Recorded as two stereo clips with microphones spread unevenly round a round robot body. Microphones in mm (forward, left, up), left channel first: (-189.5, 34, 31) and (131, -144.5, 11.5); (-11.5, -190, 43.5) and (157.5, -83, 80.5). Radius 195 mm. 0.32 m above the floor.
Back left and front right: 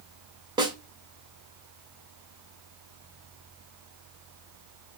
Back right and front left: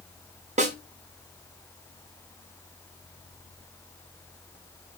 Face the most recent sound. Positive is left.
turn(degrees=25)